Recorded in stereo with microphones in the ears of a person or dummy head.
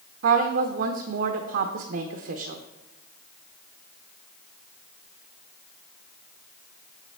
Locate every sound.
0.2 s a woman speaking: 60° right (ahead or behind), 0.8 m